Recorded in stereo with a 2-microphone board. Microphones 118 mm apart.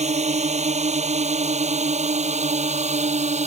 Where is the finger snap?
No finger snap in this recording.